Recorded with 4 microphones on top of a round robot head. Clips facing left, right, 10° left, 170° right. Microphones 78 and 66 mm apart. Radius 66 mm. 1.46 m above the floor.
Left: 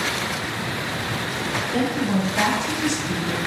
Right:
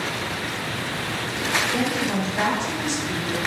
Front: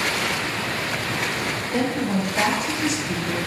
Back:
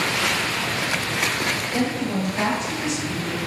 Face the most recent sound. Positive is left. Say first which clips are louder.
# left 2 dB, front 3 dB
turn(degrees=50)